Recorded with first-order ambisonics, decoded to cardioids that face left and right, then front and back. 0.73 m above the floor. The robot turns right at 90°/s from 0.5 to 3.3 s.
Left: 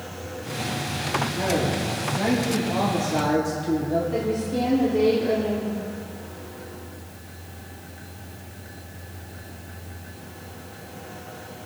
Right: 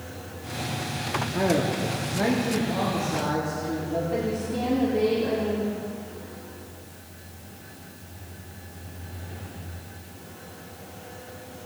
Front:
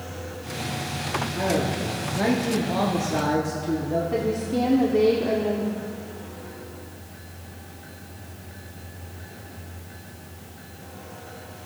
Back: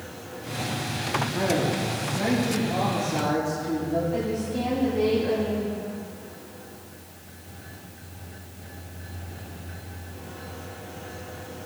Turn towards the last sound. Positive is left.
turn(degrees=10)